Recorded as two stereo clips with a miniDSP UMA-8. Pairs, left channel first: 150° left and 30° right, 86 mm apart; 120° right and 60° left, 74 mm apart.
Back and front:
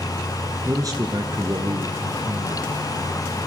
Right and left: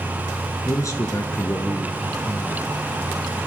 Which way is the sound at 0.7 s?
80° right.